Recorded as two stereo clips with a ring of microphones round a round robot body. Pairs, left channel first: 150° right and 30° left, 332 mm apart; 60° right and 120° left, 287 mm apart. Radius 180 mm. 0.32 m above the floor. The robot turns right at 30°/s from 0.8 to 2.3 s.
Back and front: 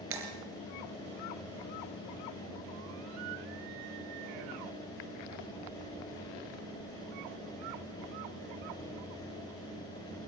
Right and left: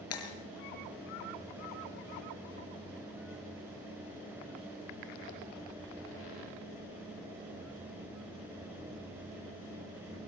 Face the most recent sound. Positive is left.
turn(degrees=20)